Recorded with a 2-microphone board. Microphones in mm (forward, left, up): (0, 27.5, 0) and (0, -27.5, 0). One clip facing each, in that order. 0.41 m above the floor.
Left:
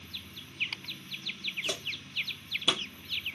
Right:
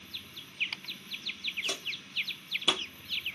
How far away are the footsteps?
About 1.0 m.